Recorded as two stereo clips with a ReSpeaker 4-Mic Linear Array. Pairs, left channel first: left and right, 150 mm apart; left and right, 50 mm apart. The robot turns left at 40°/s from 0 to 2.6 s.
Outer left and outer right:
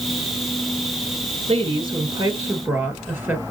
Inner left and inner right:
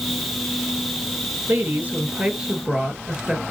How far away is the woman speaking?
About 2.5 m.